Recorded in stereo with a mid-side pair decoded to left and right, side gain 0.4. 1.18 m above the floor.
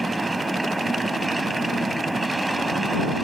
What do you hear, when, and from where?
0.0 s a machine running: 15° right